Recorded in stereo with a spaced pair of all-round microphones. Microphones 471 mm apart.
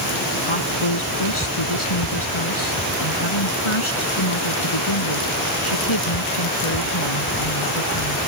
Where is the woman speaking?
90° left.